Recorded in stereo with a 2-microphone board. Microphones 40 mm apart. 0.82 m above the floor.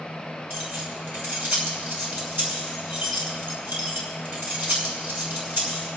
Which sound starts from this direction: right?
Keys jangling, at 0.5 s.